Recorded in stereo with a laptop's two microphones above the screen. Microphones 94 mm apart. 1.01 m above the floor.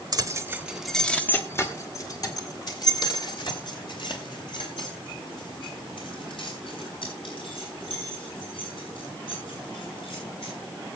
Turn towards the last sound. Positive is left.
turn(degrees=65)  # may be behind; listen again after turning